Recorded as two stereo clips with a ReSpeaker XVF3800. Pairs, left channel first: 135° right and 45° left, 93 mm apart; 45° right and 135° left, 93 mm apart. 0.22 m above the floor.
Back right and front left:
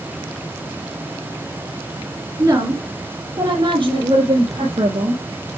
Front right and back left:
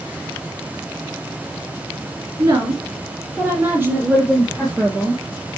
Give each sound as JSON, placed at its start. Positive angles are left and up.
{"t": 2.4, "sound": "a woman speaking", "azimuth_deg": 95, "distance_m": 2.0}